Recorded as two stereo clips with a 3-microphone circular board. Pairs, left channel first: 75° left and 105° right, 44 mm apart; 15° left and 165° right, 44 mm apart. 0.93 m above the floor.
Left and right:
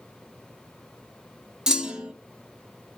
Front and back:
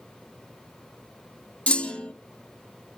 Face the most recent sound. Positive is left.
turn(degrees=-35)